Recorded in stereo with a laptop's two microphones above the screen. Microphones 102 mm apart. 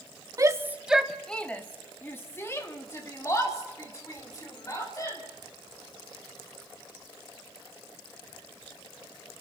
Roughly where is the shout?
Right.